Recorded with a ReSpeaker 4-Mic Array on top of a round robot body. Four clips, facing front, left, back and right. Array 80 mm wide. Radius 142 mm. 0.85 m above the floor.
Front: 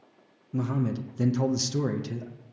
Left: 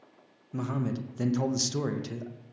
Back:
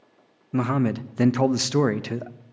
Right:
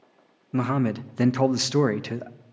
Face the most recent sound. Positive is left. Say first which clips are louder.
# right 8 dB, back 6 dB
turn(degrees=-140)